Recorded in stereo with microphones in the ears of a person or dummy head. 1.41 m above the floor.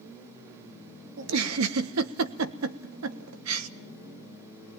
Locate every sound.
1.2 s a giggle: 75° right (ahead or behind), 1.2 m